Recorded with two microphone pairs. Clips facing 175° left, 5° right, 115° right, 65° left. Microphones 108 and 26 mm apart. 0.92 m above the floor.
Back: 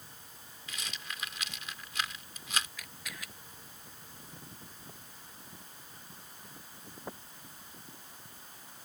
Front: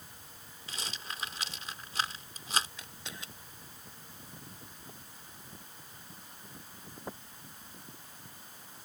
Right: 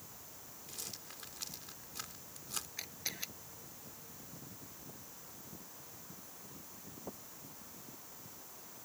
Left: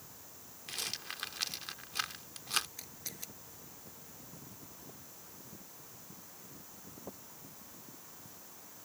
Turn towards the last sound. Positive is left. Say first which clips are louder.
# even, right 5 dB
turn(degrees=-65)